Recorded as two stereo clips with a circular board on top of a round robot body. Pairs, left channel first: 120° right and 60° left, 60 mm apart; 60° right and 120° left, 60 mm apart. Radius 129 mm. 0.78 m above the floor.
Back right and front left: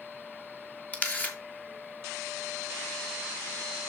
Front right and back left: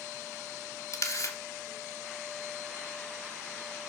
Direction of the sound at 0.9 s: 60° right.